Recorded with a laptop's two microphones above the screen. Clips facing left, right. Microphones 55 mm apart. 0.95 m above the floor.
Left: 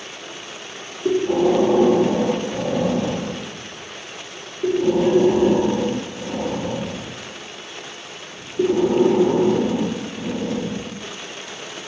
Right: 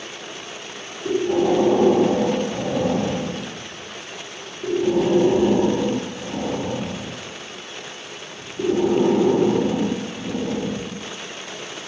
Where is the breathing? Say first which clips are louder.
Left 2 dB; 35° left (ahead or behind), 0.9 m.